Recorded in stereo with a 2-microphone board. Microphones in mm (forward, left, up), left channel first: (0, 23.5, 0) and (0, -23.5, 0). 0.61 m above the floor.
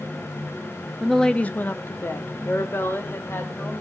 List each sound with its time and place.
1.0 s a woman speaking: 5° right (ahead or behind), 0.7 m; by 3.7 s 55° left (ahead or behind), 3 m